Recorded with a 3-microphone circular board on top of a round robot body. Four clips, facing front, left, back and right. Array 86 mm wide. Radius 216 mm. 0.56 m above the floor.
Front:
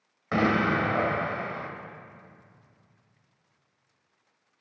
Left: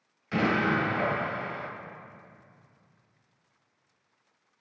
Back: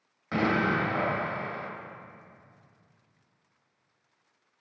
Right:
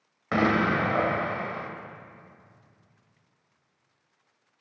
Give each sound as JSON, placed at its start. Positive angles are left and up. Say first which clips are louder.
{"t": 0.3, "sound": "an explosion", "louder": "right 3 dB, front 2 dB", "azimuth_deg": -70, "distance_m": 2.0}